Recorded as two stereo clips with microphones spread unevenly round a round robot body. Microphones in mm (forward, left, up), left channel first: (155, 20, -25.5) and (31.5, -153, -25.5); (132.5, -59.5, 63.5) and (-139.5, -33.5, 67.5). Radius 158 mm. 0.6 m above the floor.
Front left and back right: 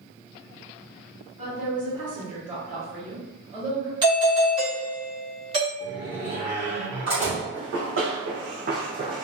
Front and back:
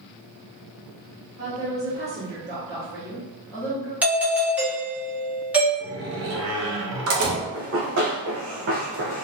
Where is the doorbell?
110° right, 1.3 m.